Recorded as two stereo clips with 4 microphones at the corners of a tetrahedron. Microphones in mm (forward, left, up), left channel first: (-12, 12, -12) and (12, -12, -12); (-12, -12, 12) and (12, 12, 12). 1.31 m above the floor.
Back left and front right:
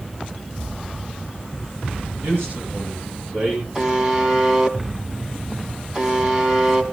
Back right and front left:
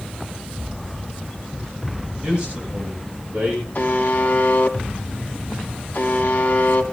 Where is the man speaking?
25° right, 7 m; by 3.6 s 20° right, 8.5 m.